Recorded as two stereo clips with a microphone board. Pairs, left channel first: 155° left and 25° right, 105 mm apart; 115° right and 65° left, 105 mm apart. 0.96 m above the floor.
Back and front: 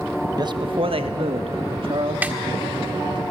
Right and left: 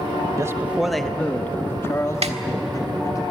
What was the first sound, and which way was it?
A man speaking, 15° left.